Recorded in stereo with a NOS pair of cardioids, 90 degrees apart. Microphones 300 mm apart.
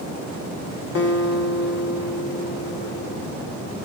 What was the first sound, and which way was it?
A guitar, 55° left.